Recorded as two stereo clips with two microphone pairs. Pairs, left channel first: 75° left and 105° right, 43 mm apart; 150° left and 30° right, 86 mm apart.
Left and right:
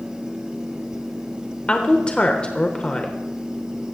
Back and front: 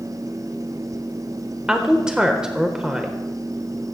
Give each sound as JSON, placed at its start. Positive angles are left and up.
{"t": 1.7, "sound": "a woman speaking", "azimuth_deg": 45, "distance_m": 1.0}